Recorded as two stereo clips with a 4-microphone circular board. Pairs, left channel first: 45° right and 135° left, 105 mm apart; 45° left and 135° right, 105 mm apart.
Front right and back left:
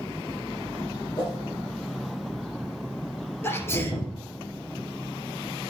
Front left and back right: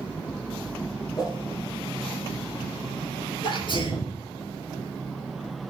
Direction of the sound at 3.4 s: 20° left.